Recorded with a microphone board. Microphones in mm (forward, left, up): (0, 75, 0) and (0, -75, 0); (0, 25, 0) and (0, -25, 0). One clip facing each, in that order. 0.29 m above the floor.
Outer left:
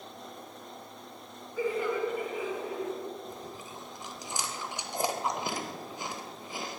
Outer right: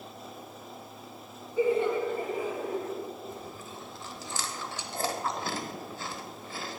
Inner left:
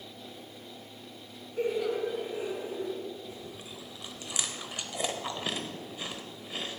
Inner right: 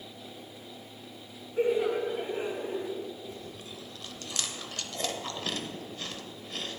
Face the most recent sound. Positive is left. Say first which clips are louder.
# outer right 1 dB, inner right 1 dB
turn(degrees=15)  # may be behind; listen again after turning